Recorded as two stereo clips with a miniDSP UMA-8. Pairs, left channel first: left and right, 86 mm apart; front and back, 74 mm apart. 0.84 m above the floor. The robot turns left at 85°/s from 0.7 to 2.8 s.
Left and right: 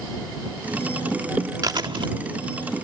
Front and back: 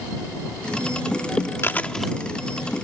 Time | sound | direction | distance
1.6 | chewing | 55° right | ?